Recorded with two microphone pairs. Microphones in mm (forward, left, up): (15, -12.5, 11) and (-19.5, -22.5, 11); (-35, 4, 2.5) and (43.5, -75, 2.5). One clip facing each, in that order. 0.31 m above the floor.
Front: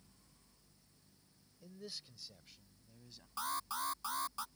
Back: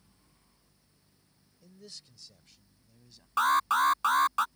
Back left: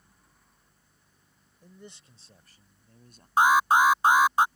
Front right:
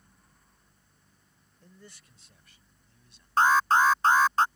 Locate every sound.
1.6 s a man speaking: 70° left; by 3.3 s 100° left
3.4 s an alarm: 150° right